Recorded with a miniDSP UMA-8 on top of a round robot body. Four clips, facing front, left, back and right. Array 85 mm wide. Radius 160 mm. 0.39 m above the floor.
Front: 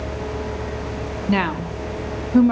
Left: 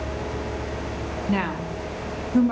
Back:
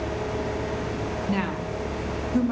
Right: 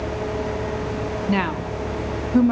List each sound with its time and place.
1.3 s a woman speaking: 20° right, 1.0 m